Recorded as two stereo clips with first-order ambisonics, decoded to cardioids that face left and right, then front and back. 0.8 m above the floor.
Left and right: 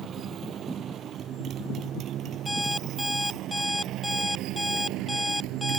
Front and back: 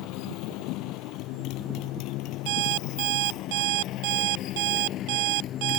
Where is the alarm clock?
175° left.